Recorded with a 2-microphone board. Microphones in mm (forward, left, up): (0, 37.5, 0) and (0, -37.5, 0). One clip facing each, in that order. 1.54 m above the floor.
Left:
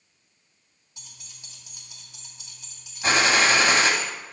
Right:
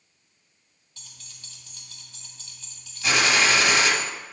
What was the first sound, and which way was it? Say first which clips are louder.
Keys jangling: even; 15° left (ahead or behind).